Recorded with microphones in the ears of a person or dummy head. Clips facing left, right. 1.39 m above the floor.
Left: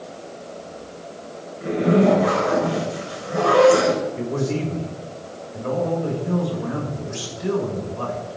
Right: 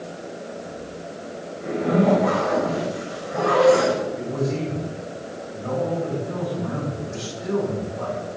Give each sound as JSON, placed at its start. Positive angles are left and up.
{"t": 1.6, "sound": "a zipper", "side_deg": 45, "distance_m": 5.5}
{"t": 4.2, "sound": "a man speaking", "side_deg": 70, "distance_m": 7.0}